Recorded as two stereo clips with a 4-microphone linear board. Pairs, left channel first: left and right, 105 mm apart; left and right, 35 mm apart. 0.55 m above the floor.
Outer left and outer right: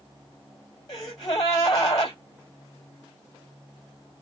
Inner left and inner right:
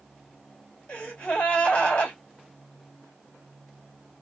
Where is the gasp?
40° left (ahead or behind), 3 m.